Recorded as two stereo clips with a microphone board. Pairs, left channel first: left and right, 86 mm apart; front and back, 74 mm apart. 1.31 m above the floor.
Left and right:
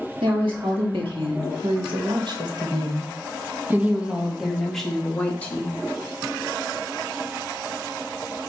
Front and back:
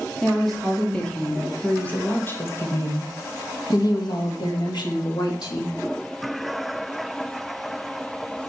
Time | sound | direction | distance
0.2 | a woman speaking | 90° right | 2.5 m